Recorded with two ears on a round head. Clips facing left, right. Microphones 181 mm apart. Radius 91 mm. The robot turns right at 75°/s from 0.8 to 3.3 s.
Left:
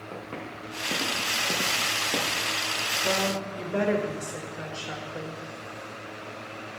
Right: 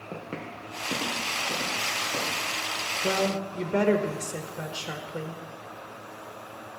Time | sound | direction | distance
0.1 | footsteps | 25° right (ahead or behind) | 3 m
3.0 | a woman speaking | 45° right (ahead or behind) | 1.1 m